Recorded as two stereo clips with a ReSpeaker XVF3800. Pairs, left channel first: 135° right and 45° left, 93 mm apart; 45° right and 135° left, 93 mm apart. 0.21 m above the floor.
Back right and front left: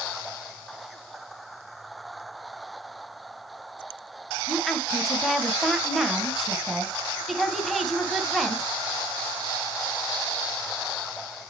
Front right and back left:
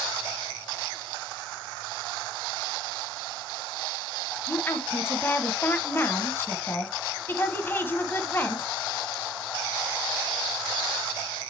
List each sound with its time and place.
4.5 s a woman speaking: 45° right, 1.2 m